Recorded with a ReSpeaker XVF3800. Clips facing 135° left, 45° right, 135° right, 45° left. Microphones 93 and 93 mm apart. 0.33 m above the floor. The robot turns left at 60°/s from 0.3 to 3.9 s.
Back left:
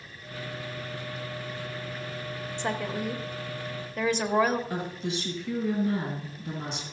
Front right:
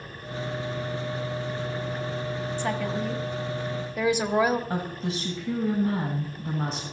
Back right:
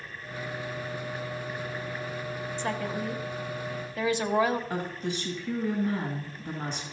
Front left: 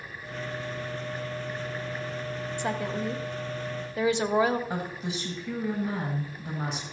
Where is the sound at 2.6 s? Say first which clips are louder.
Front right 1 dB, front left 1 dB; 100° left, 1.0 m; by 4.6 s 20° left, 1.0 m.